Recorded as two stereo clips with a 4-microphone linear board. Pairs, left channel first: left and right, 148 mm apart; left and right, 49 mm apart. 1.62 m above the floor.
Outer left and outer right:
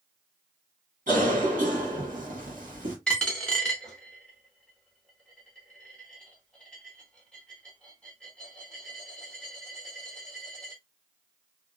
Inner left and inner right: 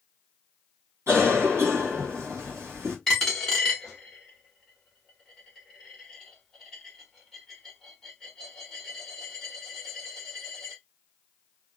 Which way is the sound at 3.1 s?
5° left (ahead or behind).